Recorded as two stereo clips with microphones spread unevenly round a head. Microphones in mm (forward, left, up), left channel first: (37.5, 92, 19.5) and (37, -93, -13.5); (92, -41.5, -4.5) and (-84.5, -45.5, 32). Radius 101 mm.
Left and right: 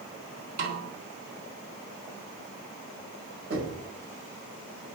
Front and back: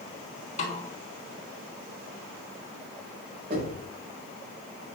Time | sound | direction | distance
0.6 | a snare drum | 50° right | 4 m
3.5 | knocking | 135° right | 5.5 m